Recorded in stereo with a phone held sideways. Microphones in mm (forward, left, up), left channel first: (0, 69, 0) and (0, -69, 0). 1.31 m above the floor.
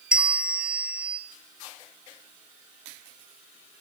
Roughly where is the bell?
Centre.